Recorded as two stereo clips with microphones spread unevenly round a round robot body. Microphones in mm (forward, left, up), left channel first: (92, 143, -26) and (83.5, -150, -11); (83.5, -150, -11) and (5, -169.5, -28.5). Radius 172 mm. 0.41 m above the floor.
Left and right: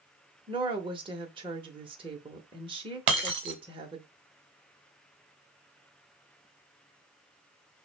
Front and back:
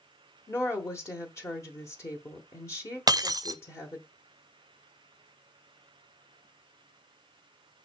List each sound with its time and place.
0.5 s a woman speaking: 30° right, 0.8 m
3.1 s breaking glass: 115° right, 0.5 m